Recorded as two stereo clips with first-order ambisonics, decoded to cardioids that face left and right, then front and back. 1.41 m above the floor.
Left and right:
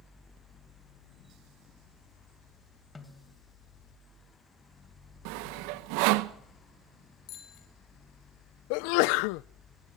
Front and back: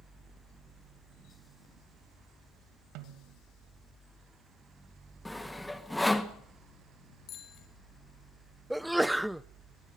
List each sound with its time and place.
3.0 s a snare drum: 165° left, 2 m
5.2 s sawing: 85° right, 1.5 m
7.3 s a bicycle bell: 55° left, 6 m
8.7 s a sneeze: 95° left, 0.5 m